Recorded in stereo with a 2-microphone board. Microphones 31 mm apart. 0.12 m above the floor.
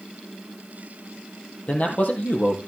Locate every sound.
1.7 s a man speaking: 50° left (ahead or behind), 3.5 m